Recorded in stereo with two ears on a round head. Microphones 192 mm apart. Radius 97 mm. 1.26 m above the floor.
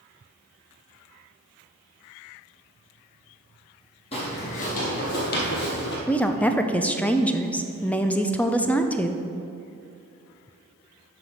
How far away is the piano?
I don't hear a piano.